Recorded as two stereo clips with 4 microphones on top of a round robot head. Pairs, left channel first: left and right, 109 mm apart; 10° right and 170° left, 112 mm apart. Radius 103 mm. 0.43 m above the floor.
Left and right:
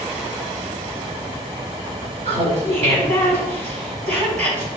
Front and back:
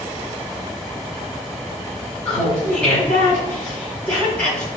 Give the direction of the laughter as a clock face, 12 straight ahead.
3 o'clock.